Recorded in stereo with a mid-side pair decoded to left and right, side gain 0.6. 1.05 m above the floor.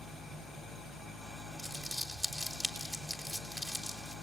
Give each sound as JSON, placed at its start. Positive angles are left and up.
{"t": 0.0, "sound": "an engine running", "azimuth_deg": -20, "distance_m": 5.5}
{"t": 1.6, "sound": "crumpling", "azimuth_deg": -15, "distance_m": 3.5}